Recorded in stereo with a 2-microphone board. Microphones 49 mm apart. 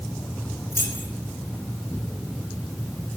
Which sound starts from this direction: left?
Keys jangling, at 0.7 s.